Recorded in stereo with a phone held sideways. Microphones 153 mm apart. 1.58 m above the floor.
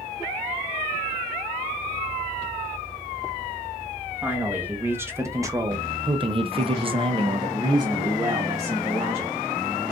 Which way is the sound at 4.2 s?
10° right (ahead or behind).